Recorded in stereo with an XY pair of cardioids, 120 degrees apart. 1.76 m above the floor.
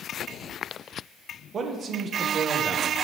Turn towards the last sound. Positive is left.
turn(degrees=-40)